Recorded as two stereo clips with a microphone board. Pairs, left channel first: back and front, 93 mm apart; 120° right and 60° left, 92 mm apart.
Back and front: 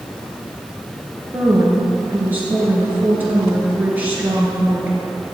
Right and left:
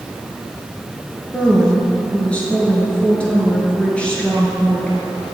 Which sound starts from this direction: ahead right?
A woman speaking, at 1.3 s.